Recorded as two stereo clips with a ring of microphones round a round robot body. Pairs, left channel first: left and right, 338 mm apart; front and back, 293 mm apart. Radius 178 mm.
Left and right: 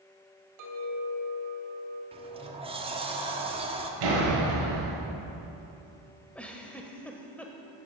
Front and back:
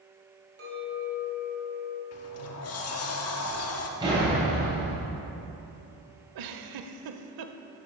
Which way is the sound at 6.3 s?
175° left.